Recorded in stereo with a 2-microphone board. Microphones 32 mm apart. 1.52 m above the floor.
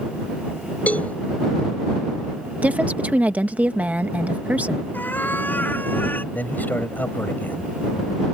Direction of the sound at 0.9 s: 50° left (ahead or behind).